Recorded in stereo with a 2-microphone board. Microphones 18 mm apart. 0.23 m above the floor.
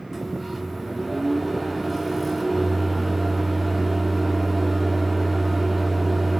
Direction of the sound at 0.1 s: 5° right (ahead or behind).